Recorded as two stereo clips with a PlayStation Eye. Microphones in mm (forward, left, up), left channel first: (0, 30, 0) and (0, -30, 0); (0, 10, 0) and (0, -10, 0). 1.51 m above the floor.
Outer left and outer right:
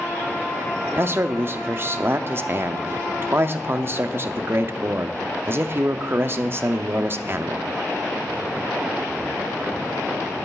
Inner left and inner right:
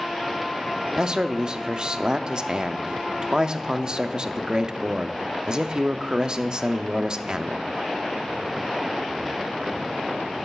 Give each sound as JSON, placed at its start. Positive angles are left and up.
{"t": 1.0, "sound": "a man speaking", "side_deg": -40, "distance_m": 0.5}